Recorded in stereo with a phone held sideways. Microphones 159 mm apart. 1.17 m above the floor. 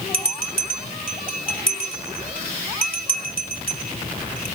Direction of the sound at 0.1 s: 65° right (ahead or behind).